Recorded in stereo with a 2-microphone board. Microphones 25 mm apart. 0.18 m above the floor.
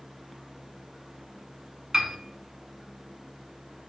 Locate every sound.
1.9 s a piano: 30° right (ahead or behind), 0.8 m